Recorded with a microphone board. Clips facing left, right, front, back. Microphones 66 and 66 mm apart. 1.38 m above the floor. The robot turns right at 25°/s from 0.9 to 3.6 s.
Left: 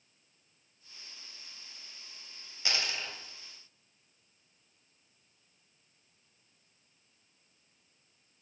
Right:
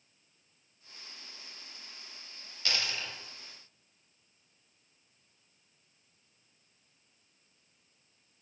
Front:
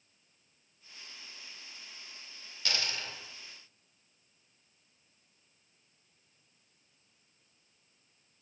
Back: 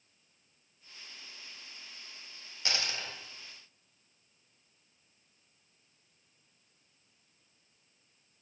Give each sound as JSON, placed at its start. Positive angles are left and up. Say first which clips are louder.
{"t": 2.6, "sound": "a dropped coin", "louder": "even, even", "azimuth_deg": 135, "distance_m": 0.9}